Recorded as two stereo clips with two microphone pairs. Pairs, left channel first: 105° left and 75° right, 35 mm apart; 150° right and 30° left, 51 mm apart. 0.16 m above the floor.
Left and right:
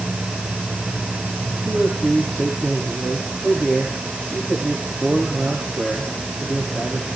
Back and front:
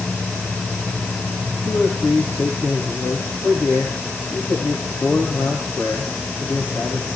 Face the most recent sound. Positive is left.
turn(degrees=-110)